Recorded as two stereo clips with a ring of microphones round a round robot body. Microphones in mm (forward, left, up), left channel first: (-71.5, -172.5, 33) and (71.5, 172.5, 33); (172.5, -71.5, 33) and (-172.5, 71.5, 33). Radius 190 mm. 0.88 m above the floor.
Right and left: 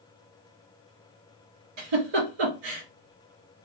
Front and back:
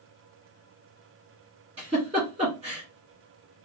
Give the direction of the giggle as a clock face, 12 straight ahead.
9 o'clock.